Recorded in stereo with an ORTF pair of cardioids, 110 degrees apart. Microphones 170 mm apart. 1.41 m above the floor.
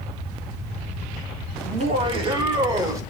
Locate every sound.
1.6 s laughter: 40° right, 1.9 m; by 3.0 s 20° right, 2.5 m